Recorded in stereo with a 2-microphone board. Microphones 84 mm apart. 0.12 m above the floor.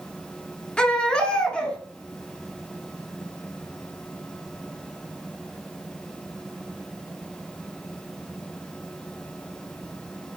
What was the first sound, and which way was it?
A baby crying, 15° left (ahead or behind).